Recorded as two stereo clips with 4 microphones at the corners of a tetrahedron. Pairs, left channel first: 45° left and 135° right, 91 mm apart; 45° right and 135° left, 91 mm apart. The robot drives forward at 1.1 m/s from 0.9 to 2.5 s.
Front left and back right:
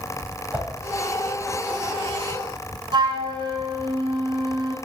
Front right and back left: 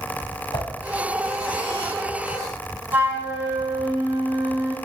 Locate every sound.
0.5 s a whoosh: 65° right, 3 m
2.9 s a flute: 160° right, 1.7 m